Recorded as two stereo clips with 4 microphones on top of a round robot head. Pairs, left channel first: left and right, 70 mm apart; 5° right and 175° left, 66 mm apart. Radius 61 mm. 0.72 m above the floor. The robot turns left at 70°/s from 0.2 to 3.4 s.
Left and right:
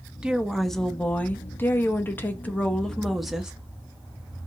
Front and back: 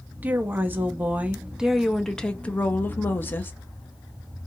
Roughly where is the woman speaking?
Behind right.